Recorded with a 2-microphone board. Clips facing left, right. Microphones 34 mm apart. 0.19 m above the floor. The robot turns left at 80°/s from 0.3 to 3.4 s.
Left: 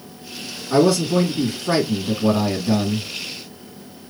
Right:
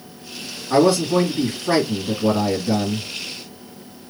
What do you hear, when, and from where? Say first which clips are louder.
0.7 s a man speaking: right 1 dB; 30° right (ahead or behind), 1.7 m; by 3.1 s 30° left (ahead or behind), 1.7 m